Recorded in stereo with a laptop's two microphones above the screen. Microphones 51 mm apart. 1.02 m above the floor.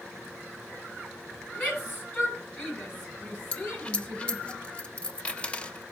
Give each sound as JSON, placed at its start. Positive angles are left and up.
{"t": 1.6, "sound": "a shout", "side_deg": 35, "distance_m": 9.0}
{"t": 3.5, "sound": "a dropped coin", "side_deg": 20, "distance_m": 0.8}